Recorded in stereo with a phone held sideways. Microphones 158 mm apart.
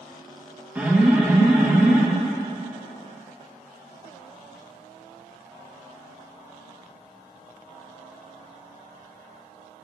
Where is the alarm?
10° right (ahead or behind), 1.8 m.